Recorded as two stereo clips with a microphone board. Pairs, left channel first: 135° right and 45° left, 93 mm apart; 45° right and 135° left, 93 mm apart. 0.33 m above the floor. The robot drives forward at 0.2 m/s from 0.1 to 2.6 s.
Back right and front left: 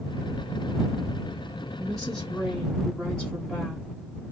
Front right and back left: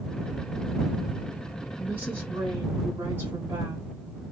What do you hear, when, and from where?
1.8 s a woman speaking: 135° left, 1.2 m; by 3.9 s 150° left, 1.2 m